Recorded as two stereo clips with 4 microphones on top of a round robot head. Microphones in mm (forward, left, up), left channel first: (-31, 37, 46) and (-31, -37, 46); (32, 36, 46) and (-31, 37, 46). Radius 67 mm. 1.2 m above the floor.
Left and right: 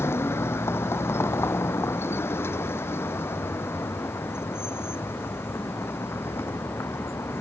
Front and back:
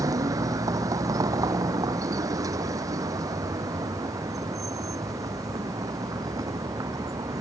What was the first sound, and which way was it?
A vehicle, 150° left.